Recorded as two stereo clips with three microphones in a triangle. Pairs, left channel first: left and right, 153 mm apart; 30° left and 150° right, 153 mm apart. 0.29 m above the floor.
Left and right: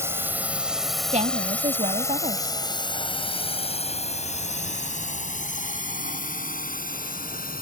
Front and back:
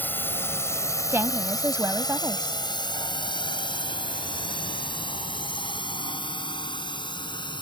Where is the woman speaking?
80° right.